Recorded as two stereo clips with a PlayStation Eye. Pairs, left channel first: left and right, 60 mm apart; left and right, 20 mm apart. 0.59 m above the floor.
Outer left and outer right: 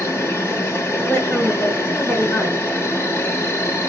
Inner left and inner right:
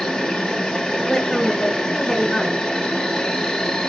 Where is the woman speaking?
35° left (ahead or behind), 1.5 m.